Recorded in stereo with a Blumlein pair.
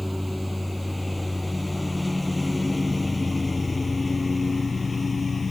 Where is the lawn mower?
Straight ahead; by 5.5 s 15° left.